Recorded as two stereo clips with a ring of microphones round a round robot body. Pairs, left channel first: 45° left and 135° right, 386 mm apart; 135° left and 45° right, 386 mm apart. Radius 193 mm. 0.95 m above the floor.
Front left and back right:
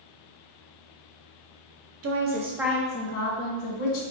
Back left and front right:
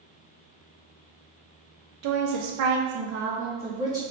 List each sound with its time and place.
2.0 s a woman speaking: 85° right, 0.9 m; by 4.0 s 35° left, 1.2 m